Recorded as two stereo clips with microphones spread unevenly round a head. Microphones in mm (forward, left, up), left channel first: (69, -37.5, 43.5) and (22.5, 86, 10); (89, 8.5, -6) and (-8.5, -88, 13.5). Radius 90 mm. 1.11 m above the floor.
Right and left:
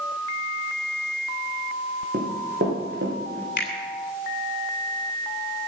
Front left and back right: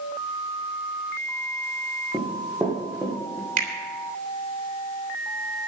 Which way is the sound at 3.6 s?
115° right.